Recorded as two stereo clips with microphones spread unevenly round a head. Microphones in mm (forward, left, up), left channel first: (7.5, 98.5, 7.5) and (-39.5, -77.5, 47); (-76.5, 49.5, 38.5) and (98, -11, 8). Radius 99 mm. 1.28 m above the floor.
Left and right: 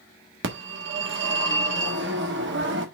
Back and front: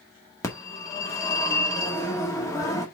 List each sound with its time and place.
0.4 s a phone ringing: 125° right, 1.7 m